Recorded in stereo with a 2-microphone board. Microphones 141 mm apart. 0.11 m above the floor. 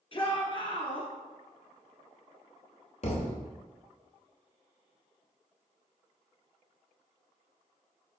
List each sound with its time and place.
0.1 s a shout: 40° left (ahead or behind), 1.8 m
3.0 s a thud: 55° left (ahead or behind), 1.1 m